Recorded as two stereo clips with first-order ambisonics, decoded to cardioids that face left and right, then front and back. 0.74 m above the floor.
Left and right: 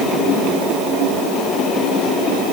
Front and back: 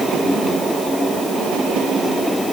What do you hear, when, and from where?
Only background noise.